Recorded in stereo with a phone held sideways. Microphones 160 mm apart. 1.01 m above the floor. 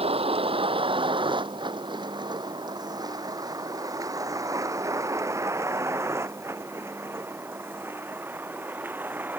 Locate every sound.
0.0 s a vehicle: 35° right (ahead or behind); by 9.4 s 10° right (ahead or behind)